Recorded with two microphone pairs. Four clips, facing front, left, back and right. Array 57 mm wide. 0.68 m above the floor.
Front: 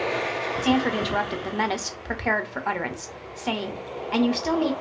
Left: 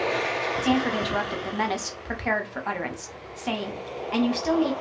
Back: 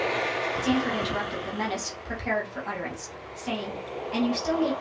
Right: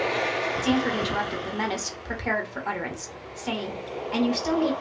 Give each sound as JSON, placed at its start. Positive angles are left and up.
{"t": 0.6, "sound": "a woman speaking", "azimuth_deg": 25, "distance_m": 0.8}